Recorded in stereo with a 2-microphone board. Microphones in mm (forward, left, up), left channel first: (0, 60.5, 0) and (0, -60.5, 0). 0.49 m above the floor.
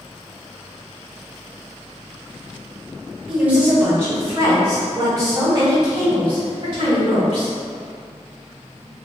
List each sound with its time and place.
3.3 s a woman speaking: 5° right (ahead or behind), 1.6 m; by 7.5 s 50° right (ahead or behind), 4 m